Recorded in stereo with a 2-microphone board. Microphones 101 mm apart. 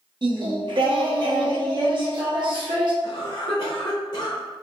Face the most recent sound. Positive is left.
turn(degrees=45)  # may be behind; listen again after turning